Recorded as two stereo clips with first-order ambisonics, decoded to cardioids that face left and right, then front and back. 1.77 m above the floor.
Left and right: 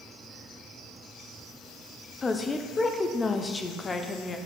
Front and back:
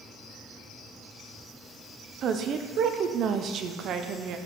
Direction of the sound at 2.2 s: 155° left.